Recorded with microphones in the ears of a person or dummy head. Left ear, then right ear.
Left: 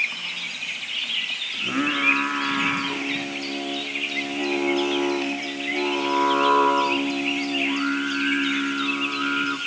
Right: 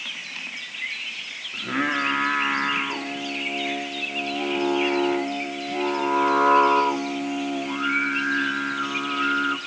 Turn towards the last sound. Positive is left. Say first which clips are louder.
# right 2 dB
turn(degrees=-25)  # may be behind; listen again after turning